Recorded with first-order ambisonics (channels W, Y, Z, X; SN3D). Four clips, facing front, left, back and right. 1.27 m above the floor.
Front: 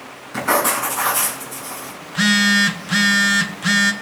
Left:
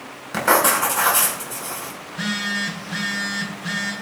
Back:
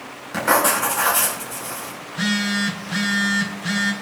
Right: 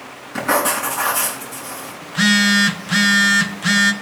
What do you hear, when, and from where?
0.3 s writing: 110° left, 4 m
2.0 s a phone buzzing: 55° right, 0.7 m